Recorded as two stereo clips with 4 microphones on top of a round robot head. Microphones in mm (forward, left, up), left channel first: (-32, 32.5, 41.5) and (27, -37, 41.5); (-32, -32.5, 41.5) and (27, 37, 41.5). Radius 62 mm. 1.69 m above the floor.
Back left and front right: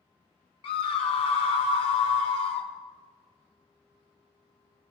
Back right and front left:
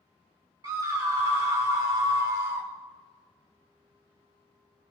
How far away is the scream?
About 0.7 m.